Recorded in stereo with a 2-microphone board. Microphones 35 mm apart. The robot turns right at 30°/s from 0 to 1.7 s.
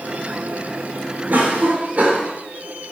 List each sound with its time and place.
1.3 s a cough: 55° right (ahead or behind), 2.5 m; by 2.3 s 45° right (ahead or behind), 2.5 m